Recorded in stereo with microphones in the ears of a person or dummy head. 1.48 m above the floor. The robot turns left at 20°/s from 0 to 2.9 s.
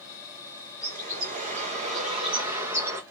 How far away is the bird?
About 1.3 m.